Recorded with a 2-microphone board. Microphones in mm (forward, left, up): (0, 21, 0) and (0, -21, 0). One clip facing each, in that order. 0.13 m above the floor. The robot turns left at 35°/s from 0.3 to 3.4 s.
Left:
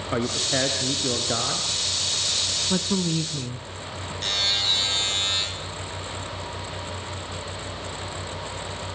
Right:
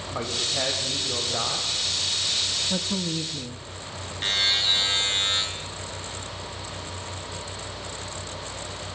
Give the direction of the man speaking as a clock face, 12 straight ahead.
9 o'clock.